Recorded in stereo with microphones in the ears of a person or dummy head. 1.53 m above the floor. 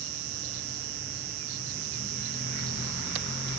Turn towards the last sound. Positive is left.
turn(degrees=-80)